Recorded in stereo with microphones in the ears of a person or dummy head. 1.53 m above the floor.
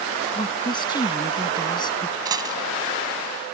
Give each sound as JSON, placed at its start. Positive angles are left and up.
{"t": 0.3, "sound": "a woman speaking", "side_deg": 20}
{"t": 2.2, "sound": "a dropped coin", "side_deg": -25}